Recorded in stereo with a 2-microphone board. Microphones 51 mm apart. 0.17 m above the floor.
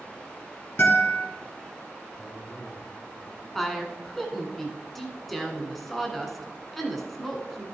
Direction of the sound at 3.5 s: 5° left (ahead or behind).